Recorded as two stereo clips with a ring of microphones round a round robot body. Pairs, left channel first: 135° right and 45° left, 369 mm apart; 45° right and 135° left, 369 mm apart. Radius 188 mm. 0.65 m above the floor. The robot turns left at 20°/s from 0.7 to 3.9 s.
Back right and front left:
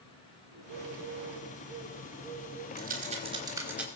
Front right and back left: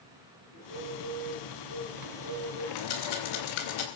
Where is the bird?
5° right, 9.5 m; by 2.7 s 45° right, 9.5 m.